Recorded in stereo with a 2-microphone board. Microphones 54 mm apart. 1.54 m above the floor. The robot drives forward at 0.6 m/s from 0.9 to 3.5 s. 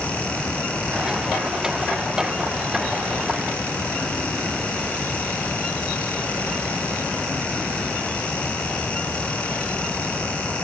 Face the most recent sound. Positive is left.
No sound to turn to.